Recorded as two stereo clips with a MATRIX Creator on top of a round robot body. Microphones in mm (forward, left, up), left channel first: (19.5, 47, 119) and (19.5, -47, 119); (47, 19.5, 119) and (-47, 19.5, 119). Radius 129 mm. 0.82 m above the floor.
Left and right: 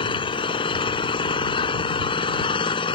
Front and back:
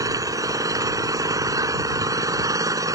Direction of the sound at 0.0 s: 125° left.